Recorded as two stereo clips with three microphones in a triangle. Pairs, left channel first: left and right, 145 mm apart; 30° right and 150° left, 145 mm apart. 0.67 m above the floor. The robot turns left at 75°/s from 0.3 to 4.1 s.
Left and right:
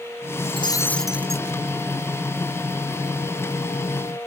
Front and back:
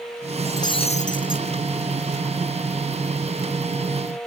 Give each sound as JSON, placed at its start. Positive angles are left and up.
{"t": 0.5, "sound": "breaking glass", "azimuth_deg": 45}